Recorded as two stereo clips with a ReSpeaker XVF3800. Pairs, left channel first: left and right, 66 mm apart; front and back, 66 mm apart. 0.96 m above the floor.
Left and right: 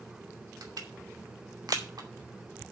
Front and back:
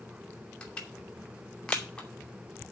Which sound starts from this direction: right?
Crushing, at 0.6 s.